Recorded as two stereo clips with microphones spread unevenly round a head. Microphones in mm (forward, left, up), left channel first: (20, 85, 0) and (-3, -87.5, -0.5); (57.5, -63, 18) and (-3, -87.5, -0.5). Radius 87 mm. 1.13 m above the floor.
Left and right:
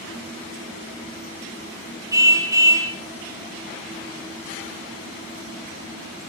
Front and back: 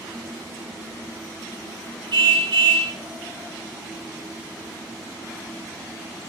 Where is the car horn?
170° right, 7.5 m.